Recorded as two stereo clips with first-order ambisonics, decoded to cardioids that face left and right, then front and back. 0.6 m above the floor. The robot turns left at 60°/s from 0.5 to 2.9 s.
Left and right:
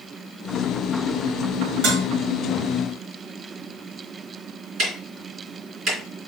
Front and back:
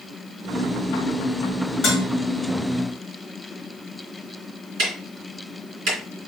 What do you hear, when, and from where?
1.8 s dishes clattering: 60° right, 2 m; by 2.1 s 75° right, 2 m
4.8 s ticking: 150° right, 3 m